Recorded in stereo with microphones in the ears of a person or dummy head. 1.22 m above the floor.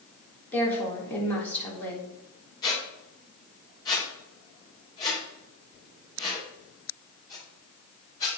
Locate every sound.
0.5 s a woman speaking: 10° left (ahead or behind), 3 m
2.6 s a squeak: 20° left (ahead or behind), 3.5 m